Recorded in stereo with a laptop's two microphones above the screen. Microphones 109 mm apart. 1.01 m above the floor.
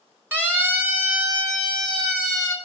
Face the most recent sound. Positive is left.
turn(degrees=-25)  # may be behind; listen again after turning